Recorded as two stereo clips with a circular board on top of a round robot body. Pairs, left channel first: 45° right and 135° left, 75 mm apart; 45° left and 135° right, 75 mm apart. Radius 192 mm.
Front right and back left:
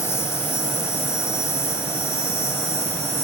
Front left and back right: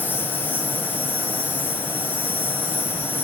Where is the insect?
5° right, 3 m.